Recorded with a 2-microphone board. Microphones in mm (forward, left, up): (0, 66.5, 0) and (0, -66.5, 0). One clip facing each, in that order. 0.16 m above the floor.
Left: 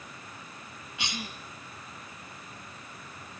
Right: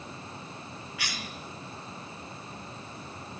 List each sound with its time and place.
1.0 s a cough: 20° left (ahead or behind), 2 m